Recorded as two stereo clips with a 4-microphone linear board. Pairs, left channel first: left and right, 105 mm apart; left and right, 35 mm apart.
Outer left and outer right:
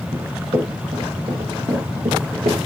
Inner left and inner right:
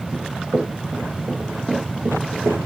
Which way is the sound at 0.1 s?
60° right (ahead or behind).